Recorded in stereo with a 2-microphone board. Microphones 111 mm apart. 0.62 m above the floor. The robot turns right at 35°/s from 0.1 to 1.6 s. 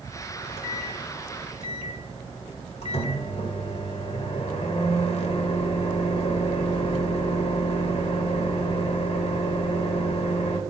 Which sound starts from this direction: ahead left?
A microwave, at 0.3 s.